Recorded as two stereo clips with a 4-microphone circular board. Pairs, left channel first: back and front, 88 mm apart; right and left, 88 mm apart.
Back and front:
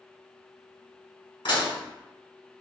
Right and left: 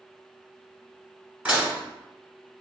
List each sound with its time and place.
1.4 s dishes clattering: 165° left, 1.3 m